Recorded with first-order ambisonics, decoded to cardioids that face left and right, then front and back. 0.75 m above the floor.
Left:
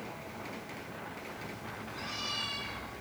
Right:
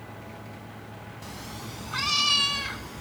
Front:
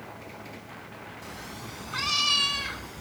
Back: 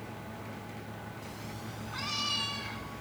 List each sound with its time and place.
1.2 s a cat meowing: 75° right, 1.1 m; by 3.0 s 55° right, 2 m